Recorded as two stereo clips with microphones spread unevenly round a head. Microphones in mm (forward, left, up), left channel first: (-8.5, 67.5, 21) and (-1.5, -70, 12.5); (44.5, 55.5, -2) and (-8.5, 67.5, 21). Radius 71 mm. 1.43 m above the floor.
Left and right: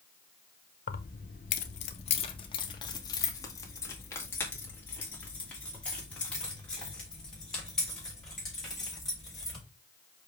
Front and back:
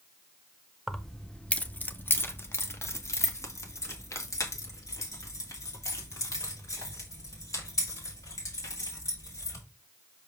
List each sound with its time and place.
0.9 s keys jangling: 90° left, 0.8 m; by 9.6 s 5° left, 5 m